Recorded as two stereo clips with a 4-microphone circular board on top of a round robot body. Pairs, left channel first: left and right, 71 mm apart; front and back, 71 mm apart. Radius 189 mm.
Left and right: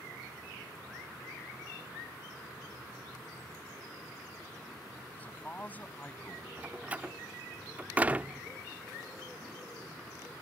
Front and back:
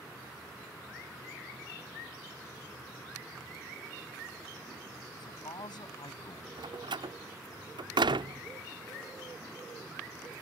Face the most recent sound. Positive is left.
turn(degrees=-165)